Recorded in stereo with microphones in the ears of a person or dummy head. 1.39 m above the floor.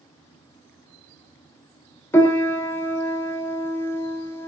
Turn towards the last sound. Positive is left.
turn(degrees=10)  # may be behind; listen again after turning